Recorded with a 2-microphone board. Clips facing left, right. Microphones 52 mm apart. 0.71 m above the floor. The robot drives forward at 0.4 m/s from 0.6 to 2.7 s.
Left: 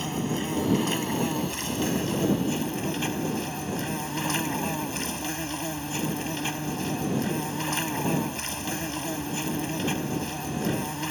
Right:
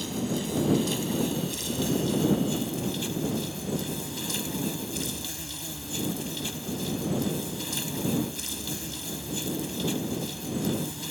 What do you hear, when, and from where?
0.0 s an insect: 40° left (ahead or behind); by 11.1 s 50° left (ahead or behind)